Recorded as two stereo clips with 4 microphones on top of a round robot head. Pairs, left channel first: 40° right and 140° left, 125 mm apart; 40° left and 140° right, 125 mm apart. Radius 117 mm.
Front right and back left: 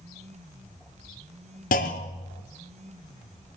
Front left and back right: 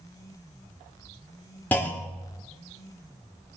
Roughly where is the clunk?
Ahead right.